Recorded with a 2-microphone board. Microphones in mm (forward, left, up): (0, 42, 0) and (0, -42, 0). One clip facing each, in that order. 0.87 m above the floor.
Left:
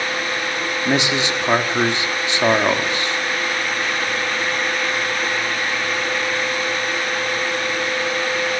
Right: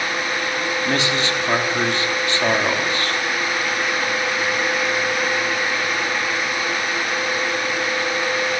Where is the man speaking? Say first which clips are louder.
Left 3 dB; 20° left (ahead or behind), 2 m.